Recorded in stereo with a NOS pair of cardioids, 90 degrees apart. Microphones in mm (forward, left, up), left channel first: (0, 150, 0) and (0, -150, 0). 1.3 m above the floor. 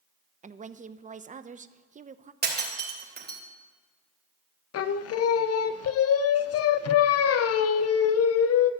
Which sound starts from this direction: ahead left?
Singing, at 4.7 s.